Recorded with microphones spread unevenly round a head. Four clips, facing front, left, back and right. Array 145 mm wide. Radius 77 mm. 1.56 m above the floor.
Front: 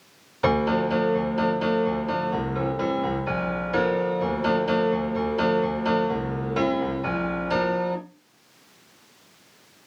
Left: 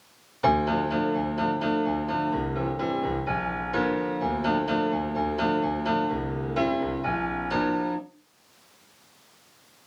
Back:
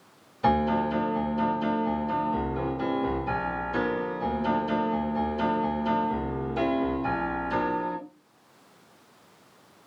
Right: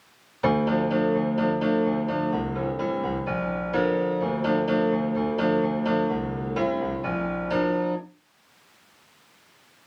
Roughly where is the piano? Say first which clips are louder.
Right 1 dB, front 2 dB; ahead.